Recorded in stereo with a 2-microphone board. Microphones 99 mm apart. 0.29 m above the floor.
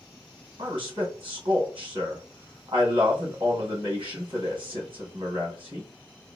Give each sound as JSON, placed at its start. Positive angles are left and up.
{"t": 0.6, "sound": "a man speaking", "side_deg": -60, "distance_m": 2.5}